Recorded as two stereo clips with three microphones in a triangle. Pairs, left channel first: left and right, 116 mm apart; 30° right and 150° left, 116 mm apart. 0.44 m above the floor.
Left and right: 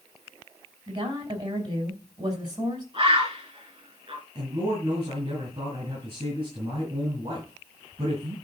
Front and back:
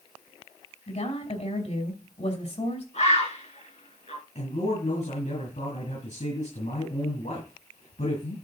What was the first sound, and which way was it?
A woman speaking, 40° right.